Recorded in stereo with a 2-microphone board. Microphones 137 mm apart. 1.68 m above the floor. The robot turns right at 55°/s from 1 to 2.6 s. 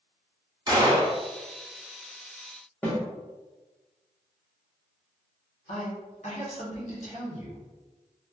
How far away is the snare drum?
About 0.9 m.